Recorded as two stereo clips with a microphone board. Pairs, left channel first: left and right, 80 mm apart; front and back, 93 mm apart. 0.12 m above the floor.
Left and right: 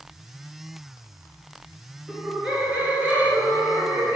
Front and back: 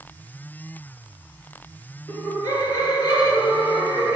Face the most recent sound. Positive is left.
turn(degrees=-35)